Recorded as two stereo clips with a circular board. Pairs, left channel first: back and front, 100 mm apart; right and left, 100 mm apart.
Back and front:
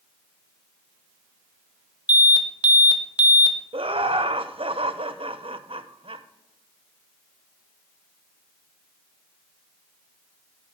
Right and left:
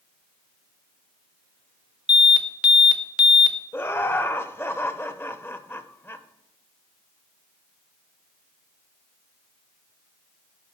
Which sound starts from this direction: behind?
An alarm, at 2.1 s.